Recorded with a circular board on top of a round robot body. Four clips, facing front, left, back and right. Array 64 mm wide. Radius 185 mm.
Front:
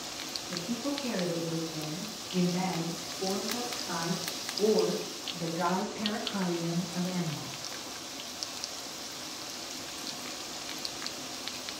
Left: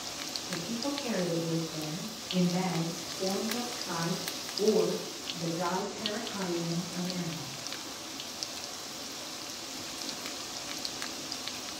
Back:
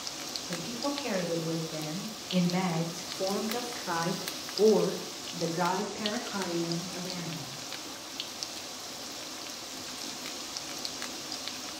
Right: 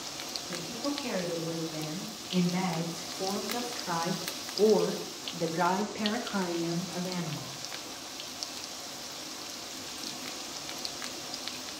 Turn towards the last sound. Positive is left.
turn(degrees=-85)